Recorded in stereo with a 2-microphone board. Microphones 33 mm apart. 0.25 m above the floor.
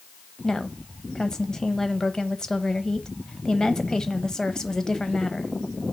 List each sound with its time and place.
0.4 s a woman speaking: 20° left (ahead or behind), 1.1 m